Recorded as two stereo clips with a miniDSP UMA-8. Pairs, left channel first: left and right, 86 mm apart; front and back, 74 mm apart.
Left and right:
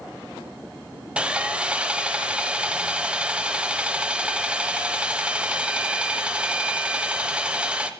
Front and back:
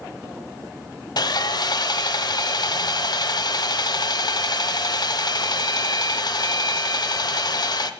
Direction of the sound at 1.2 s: 15° right.